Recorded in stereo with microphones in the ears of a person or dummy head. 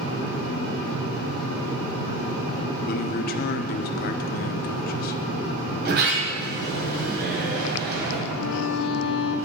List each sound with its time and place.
2.9 s a man speaking: 40° left (ahead or behind), 0.7 m
5.8 s a sliding door: 50° right (ahead or behind), 2 m
8.3 s a violin: 75° left (ahead or behind), 0.9 m